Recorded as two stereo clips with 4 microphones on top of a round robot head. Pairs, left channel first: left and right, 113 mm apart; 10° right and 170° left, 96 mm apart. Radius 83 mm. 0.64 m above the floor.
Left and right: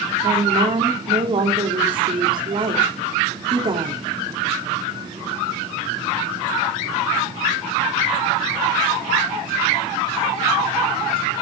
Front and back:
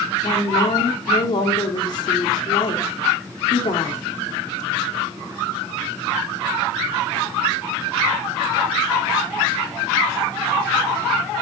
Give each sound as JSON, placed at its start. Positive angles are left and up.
{"t": 0.2, "sound": "a woman speaking", "azimuth_deg": -50, "distance_m": 2.0}